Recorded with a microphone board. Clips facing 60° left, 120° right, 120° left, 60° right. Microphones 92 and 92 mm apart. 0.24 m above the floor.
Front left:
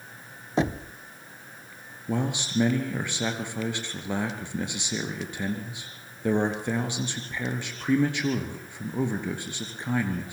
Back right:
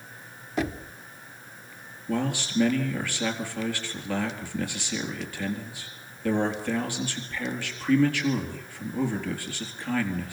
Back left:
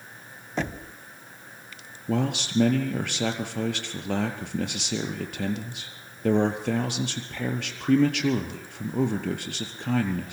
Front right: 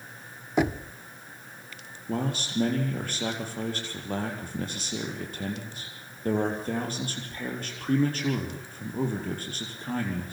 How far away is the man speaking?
About 4 m.